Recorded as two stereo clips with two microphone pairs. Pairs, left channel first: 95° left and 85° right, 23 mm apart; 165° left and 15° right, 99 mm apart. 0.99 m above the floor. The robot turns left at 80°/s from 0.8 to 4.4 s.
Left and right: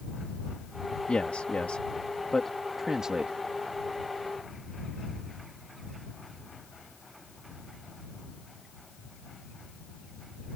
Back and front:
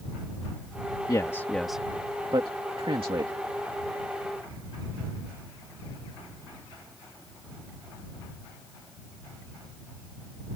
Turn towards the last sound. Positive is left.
turn(degrees=-140)